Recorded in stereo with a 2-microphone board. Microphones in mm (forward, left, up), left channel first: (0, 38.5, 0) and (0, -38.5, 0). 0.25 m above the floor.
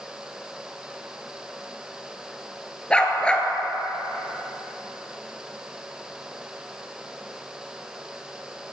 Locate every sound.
2.9 s a dog barking: 15° left (ahead or behind), 1.4 m